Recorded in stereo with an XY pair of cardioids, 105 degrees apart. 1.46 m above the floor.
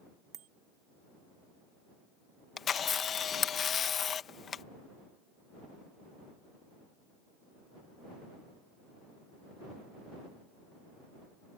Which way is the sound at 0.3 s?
70° right.